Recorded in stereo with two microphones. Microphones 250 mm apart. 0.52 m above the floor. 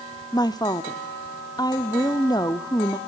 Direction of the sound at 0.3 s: 15° left (ahead or behind).